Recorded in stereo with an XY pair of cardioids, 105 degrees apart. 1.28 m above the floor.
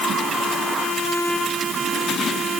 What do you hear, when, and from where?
Only background noise.